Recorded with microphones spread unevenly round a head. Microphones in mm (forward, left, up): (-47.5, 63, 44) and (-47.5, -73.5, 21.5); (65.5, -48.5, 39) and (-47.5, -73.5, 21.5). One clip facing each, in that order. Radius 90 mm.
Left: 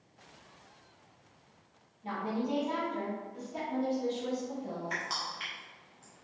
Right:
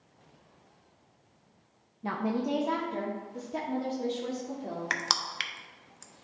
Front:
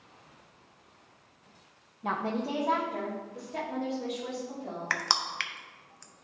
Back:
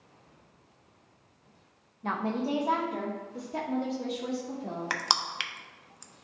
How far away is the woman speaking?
About 0.8 m.